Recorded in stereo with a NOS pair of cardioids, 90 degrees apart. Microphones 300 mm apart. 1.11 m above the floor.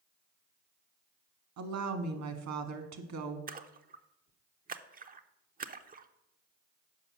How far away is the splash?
About 0.6 m.